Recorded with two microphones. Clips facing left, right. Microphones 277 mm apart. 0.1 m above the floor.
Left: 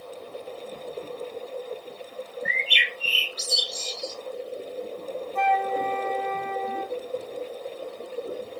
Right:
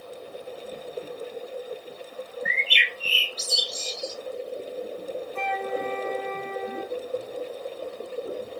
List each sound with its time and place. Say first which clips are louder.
2.5 s a bird: left 1 dB; 15° left (ahead or behind), 1.2 m
5.3 s a flute: left 4 dB; 30° right (ahead or behind), 0.7 m